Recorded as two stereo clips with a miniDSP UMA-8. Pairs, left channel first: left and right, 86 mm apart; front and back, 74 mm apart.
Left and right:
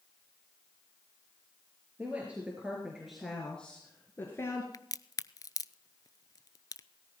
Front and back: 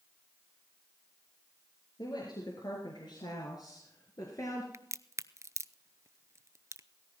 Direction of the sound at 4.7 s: 135° left.